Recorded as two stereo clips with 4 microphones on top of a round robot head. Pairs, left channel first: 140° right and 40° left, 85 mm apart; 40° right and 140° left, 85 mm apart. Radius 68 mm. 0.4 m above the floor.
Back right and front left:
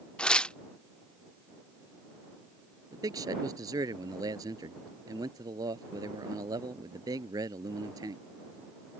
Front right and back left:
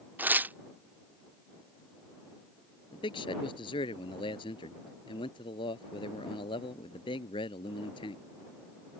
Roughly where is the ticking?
No ticking in this recording.